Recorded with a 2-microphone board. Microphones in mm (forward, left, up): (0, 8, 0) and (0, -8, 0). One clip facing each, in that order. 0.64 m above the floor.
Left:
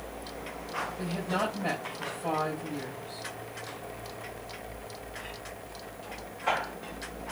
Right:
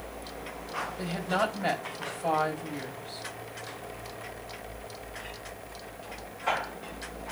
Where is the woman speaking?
70° right (ahead or behind), 3.5 m.